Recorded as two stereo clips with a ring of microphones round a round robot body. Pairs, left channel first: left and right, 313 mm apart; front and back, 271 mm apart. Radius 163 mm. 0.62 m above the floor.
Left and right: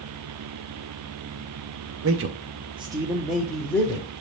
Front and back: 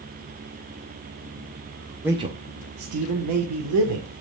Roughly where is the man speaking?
Right.